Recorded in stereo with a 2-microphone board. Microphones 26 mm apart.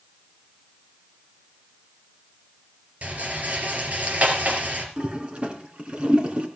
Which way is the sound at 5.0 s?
45° right (ahead or behind).